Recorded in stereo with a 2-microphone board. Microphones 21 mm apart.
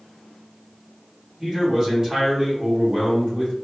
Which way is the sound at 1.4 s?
30° right (ahead or behind).